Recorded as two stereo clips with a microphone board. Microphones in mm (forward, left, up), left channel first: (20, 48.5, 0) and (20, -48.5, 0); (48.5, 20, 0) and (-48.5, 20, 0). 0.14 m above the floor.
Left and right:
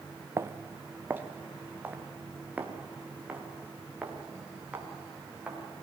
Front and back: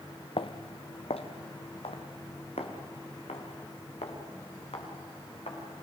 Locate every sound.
0.4 s footsteps: 25° right, 0.9 m; by 5.8 s 10° right, 7 m